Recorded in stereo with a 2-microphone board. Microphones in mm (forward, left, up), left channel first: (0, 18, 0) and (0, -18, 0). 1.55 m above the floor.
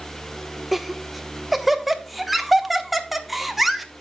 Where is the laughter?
5° right (ahead or behind), 1.1 m.